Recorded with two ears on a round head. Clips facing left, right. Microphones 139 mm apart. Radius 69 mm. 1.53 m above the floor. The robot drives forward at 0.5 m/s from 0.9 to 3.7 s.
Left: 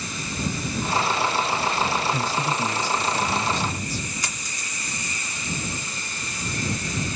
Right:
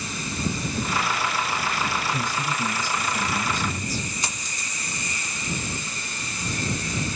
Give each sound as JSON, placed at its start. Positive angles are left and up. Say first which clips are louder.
{"t": 2.1, "sound": "a man speaking", "louder": "left 3 dB", "side_deg": 25, "distance_m": 3.0}
{"t": 4.2, "sound": "a dropped coin", "louder": "right 1 dB", "side_deg": -20, "distance_m": 2.0}